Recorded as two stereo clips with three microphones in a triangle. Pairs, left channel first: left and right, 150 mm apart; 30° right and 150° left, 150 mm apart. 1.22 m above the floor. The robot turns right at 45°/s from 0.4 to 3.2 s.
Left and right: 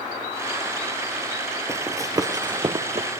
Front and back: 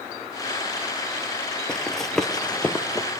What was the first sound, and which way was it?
Running footsteps, 105° right.